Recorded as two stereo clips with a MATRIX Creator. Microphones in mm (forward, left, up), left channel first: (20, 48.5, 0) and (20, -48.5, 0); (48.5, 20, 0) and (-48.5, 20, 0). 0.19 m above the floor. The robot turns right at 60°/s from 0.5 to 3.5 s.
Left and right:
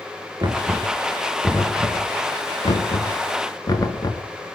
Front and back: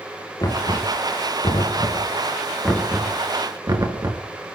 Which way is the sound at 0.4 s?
45° right.